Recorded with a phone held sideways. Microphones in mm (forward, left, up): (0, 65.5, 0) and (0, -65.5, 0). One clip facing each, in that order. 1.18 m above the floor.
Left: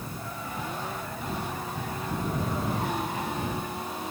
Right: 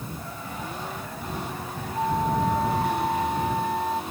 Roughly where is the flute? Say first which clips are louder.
Right 9 dB; right.